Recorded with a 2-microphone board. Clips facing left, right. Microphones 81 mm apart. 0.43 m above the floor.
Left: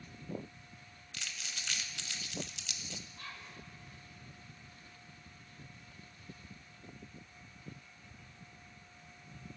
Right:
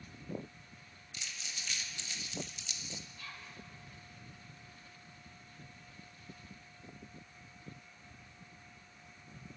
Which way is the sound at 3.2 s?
45° left (ahead or behind).